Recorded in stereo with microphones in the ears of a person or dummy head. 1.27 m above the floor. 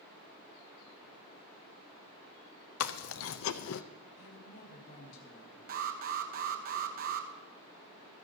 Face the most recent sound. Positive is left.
turn(degrees=-50)  # may be behind; listen again after turning